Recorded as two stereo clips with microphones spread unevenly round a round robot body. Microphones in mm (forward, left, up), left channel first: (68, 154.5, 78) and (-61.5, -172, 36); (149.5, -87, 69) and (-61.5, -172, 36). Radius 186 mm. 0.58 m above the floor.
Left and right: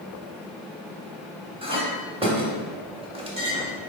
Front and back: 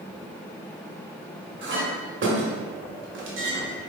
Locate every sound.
1.6 s a clink: 175° left, 1.3 m